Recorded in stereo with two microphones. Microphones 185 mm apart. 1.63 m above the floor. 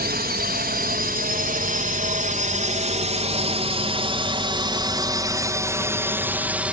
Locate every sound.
0.0 s a drone: 55° right (ahead or behind); by 6.7 s 5° right (ahead or behind)